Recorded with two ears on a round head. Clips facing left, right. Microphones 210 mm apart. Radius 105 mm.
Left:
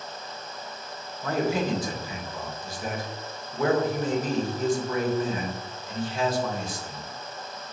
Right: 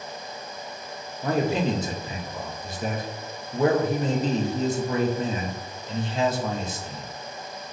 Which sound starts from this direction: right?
A man speaking, at 1.2 s.